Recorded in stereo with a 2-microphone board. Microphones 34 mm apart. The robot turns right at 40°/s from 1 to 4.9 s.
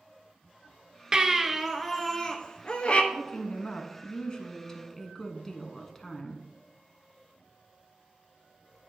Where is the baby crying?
25° right, 0.8 m; by 3.0 s 50° left, 0.8 m.